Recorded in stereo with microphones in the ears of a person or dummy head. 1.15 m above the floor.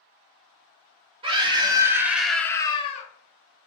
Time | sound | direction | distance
1.2 | a scream | 25° right (ahead or behind) | 1.3 m